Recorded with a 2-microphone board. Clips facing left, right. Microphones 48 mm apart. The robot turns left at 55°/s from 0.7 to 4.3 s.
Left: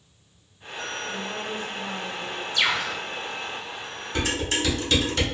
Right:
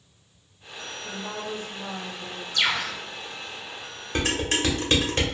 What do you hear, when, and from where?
1.0 s a woman speaking: 30° right (ahead or behind), 1.4 m; by 2.4 s centre (ahead or behind), 1.4 m
2.5 s a bird: 15° left (ahead or behind), 0.9 m; by 3.0 s 25° left (ahead or behind), 0.9 m
4.2 s dishes clattering: 45° right (ahead or behind), 1.0 m; by 5.2 s 40° right (ahead or behind), 1.0 m